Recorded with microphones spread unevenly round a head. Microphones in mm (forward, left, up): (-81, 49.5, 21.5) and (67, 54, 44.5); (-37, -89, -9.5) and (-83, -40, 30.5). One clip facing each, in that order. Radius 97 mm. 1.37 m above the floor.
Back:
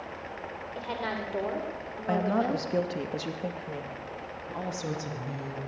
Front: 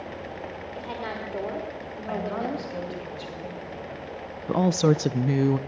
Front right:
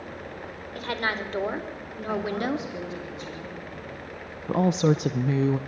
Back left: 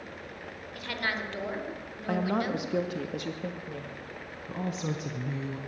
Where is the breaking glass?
I don't hear breaking glass.